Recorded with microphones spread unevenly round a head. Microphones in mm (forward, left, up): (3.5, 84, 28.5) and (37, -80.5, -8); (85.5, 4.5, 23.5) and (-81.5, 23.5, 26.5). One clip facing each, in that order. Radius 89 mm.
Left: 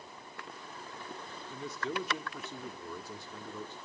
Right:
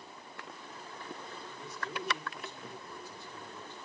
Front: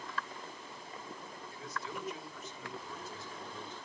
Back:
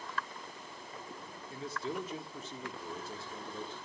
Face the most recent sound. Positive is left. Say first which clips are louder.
# left 7 dB, back 6 dB
turn(degrees=115)